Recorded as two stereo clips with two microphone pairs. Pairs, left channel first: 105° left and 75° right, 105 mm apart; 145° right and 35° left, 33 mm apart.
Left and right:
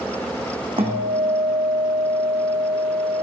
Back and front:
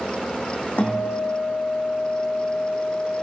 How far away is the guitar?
About 2.0 m.